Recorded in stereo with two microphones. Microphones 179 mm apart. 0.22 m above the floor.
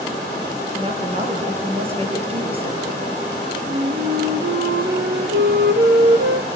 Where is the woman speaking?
35° right (ahead or behind), 5.5 m.